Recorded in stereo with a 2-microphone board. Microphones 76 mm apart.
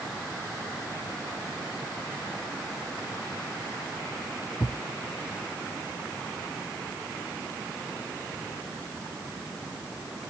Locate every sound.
4.6 s a thud: 35° left (ahead or behind)